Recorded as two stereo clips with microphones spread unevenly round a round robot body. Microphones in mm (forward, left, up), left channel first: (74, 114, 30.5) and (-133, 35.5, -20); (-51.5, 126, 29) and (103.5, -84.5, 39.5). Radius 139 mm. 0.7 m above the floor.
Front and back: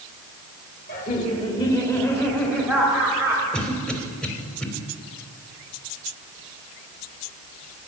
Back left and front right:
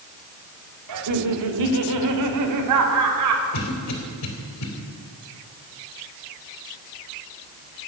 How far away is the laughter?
About 2 m.